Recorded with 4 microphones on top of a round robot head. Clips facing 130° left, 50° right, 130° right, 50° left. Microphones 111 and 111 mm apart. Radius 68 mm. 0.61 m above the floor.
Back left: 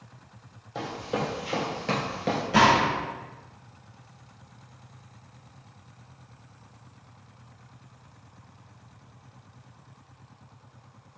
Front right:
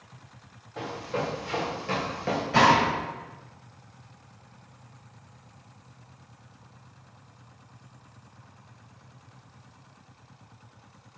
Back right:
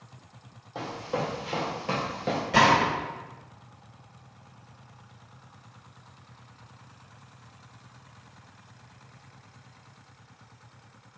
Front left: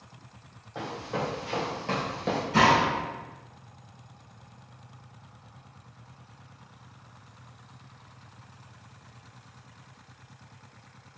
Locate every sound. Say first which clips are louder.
0.8 s running footsteps: back left 1 dB, back right 1 dB; 155° left, 1.5 m; by 2.4 s 80° left, 0.5 m
2.5 s a gunshot: even, back right 1 dB; 150° right, 1.3 m